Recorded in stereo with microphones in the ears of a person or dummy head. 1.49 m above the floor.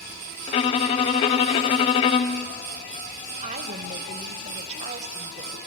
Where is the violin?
25° left (ahead or behind), 0.8 m.